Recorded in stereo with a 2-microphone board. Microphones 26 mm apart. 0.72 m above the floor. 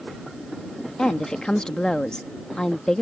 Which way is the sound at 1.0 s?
30° left (ahead or behind).